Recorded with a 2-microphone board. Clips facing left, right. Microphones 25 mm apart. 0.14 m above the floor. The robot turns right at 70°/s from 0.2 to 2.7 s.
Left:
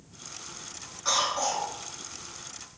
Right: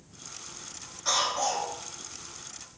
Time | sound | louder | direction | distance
1.1 | a cough | even | 25° left (ahead or behind) | 1.8 m